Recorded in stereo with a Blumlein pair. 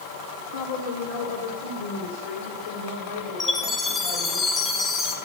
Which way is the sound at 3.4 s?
15° left.